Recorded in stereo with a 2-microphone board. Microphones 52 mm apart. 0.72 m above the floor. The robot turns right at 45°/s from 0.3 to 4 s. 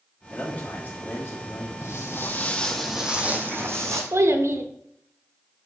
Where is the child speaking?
60° right (ahead or behind), 1.0 m.